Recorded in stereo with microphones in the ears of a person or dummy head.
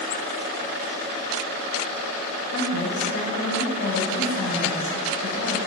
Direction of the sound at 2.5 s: 70° left (ahead or behind).